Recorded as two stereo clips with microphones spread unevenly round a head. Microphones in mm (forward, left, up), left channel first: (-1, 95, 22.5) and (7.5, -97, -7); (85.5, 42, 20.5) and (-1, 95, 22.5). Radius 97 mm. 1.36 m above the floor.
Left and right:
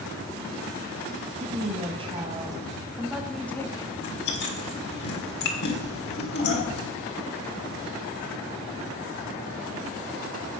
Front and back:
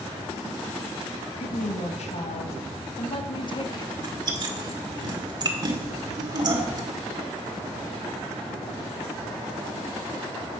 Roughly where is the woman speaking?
Ahead right.